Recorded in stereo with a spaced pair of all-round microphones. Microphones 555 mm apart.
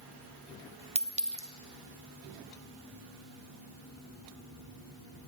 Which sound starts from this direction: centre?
A clink, at 0.9 s.